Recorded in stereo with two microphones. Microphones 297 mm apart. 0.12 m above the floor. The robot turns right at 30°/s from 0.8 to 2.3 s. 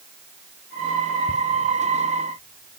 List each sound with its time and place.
1.3 s ticking: centre (ahead or behind), 1.8 m